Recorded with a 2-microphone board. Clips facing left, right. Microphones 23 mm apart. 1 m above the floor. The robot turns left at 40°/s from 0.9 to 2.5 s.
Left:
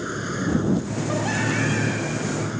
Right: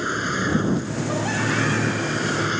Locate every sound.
0.0 s a vehicle: 30° right; by 2.6 s 95° right